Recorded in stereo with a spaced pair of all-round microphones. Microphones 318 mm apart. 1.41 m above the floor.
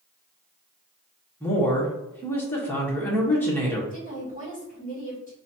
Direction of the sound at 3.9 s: 25° left (ahead or behind).